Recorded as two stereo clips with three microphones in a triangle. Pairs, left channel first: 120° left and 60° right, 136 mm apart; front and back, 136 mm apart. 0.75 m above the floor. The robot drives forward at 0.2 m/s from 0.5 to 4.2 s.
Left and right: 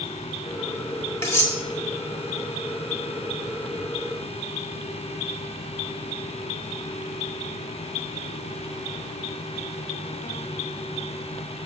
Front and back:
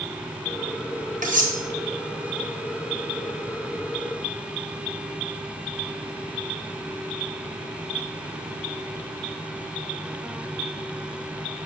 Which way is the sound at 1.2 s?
170° right.